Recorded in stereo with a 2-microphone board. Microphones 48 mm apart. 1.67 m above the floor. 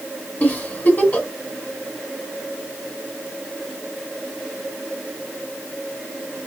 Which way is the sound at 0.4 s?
30° left (ahead or behind).